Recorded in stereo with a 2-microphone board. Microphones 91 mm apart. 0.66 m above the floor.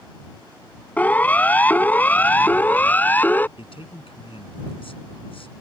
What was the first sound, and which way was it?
A siren, 15° left (ahead or behind).